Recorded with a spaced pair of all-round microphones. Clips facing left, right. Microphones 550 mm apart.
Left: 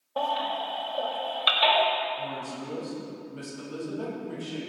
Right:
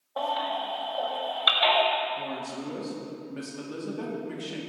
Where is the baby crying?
50° left (ahead or behind), 1.6 m.